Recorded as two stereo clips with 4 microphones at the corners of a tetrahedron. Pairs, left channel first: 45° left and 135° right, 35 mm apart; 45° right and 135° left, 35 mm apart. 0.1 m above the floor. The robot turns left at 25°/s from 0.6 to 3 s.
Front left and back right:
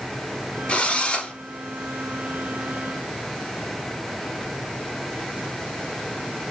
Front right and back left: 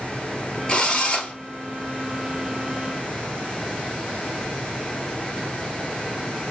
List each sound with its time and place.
0.7 s a drill: 15° left, 1.6 m; by 1.3 s straight ahead, 1.6 m